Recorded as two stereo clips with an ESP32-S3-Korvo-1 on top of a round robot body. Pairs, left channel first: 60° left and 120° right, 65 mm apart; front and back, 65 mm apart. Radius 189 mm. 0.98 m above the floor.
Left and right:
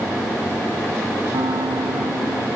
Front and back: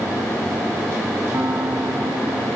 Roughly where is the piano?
Behind right.